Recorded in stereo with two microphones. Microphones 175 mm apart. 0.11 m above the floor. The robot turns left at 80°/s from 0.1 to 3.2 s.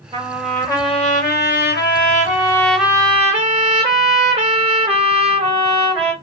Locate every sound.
0.1 s a trumpet: 150° right, 3 m; by 6.1 s 35° right, 3 m